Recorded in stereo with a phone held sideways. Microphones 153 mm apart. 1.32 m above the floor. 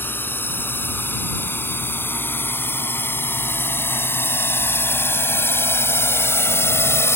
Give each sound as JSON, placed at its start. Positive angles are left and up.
{"t": 0.0, "sound": "a drone", "side_deg": 10}